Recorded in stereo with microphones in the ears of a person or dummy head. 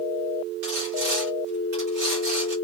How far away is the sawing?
About 1.2 m.